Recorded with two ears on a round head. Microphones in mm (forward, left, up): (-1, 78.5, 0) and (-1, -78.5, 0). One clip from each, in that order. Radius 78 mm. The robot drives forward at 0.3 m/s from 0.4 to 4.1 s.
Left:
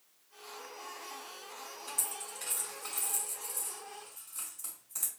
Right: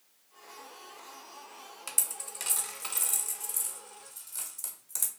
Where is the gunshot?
I don't hear a gunshot.